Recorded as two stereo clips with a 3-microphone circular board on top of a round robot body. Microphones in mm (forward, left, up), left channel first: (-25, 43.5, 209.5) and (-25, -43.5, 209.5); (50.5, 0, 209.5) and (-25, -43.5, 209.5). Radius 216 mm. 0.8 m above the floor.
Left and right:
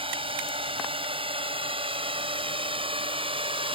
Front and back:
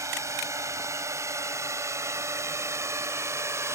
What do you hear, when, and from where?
0.0 s a drone: 95° right; by 3.8 s 90° right